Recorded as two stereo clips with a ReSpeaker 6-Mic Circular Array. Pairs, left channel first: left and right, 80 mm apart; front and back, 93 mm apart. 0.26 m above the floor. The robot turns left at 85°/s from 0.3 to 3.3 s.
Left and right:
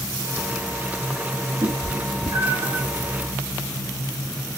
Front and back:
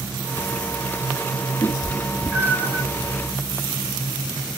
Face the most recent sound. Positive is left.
turn(degrees=160)